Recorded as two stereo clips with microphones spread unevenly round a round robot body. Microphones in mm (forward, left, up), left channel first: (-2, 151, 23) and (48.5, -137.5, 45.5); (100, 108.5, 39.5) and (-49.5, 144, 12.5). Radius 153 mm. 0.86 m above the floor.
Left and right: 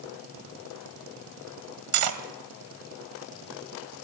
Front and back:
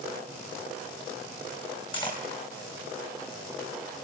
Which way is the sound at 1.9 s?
85° right.